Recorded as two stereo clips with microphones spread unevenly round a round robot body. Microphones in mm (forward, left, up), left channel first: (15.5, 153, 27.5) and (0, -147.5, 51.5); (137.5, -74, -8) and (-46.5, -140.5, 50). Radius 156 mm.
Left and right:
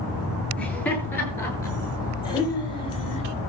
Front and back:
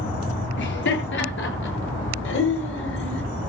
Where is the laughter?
Straight ahead, 8 m; by 3.2 s 15° left, 7 m.